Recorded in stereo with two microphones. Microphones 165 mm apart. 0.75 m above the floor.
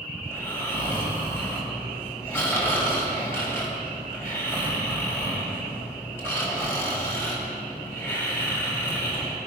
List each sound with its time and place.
0.2 s snoring: 15° left (ahead or behind), 4 m